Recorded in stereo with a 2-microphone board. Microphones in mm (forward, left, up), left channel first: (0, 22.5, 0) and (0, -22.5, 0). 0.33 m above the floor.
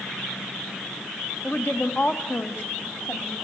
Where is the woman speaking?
45° left (ahead or behind), 1.9 m; by 3.3 s 50° left (ahead or behind), 2.5 m.